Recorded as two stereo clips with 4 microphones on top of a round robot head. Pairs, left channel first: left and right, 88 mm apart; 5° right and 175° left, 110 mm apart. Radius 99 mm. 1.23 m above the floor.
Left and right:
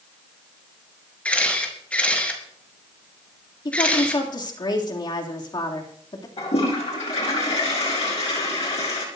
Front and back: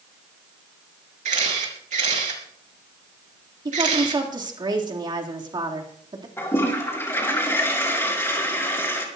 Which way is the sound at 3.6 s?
125° left.